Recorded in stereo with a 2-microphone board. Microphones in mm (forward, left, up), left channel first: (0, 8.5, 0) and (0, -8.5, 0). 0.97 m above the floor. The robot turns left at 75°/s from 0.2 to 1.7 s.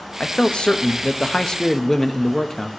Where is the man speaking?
135° left, 0.7 m; by 2.7 s 25° left, 0.7 m.